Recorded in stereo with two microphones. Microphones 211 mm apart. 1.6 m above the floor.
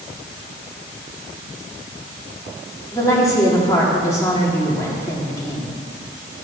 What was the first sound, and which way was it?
A woman speaking, 15° left (ahead or behind).